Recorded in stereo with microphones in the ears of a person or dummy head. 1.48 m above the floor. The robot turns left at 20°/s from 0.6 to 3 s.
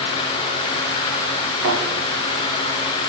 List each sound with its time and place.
1.6 s a thud: 70° right (ahead or behind), 3.5 m; by 1.8 s 65° right (ahead or behind), 3.5 m